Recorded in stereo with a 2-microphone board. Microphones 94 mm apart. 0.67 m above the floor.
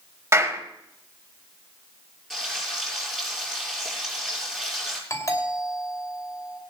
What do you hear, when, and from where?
0.3 s a clap: 30° right (ahead or behind), 3.5 m
2.3 s frying: 5° left (ahead or behind), 7.5 m
5.1 s a doorbell: 40° left (ahead or behind), 2.5 m